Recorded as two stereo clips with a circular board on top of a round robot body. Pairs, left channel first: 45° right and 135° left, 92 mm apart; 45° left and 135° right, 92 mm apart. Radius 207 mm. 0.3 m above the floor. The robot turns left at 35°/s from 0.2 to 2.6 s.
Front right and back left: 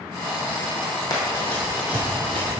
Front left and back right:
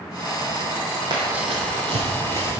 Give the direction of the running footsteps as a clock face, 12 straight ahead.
3 o'clock.